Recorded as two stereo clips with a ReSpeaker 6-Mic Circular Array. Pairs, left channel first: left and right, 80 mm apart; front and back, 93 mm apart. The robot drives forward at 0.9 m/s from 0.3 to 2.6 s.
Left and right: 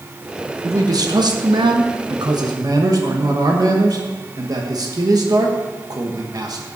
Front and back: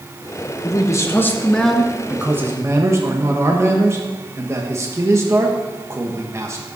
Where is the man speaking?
50° right, 1.6 m; by 6.7 s 125° right, 1.4 m.